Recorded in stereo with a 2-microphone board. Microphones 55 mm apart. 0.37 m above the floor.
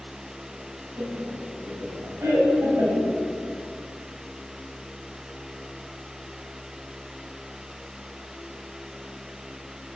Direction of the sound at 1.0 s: 65° right (ahead or behind).